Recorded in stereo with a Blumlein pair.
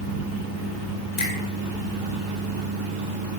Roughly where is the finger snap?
Ahead left.